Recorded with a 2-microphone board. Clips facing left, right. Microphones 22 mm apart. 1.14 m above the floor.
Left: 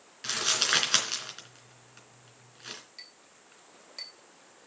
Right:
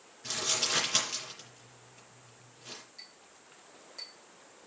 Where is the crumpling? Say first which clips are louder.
Left 4 dB; 70° left (ahead or behind), 3.5 m.